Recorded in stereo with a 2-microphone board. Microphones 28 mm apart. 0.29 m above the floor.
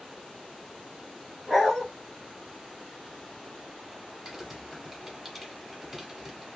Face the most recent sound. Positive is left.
turn(degrees=-10)  # may be behind; listen again after turning